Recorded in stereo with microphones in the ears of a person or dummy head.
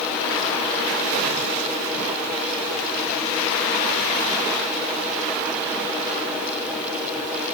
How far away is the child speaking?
No child speaking in this recording.